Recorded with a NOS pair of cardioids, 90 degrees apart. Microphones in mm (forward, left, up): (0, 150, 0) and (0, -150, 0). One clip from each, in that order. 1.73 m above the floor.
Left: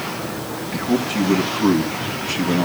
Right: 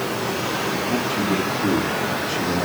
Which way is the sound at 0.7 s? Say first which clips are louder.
Even; 65° left.